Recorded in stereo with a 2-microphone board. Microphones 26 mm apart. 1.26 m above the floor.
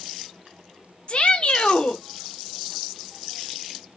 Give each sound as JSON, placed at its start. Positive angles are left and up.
{"t": 1.1, "sound": "a shout", "side_deg": 45, "distance_m": 0.9}